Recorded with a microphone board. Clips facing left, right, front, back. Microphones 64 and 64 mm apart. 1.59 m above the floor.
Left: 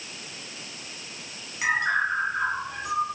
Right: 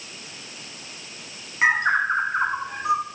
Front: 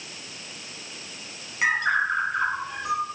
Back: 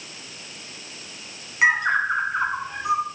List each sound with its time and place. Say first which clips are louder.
1.6 s a bird: right 4 dB, back 3 dB; 120° right, 2 m